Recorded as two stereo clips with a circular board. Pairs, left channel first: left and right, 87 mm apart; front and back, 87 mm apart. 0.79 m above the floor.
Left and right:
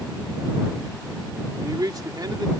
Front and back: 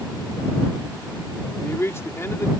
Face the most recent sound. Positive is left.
turn(degrees=-55)